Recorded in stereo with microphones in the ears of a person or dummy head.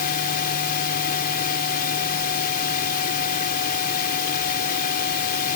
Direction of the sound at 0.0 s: 45° left (ahead or behind).